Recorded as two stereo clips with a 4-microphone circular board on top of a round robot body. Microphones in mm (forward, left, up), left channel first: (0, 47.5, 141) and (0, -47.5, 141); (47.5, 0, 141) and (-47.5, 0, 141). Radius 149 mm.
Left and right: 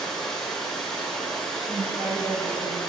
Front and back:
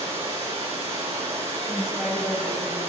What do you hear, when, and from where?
0.0 s running water: 175° left, 5 m
1.7 s a woman speaking: 95° right, 5.5 m